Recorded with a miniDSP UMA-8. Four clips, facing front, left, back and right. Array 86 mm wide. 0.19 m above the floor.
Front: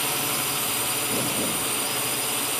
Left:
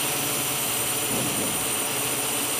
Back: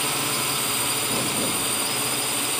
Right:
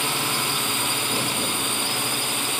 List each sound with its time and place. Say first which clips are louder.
0.0 s a drone: right 4 dB, back 2 dB; 105° right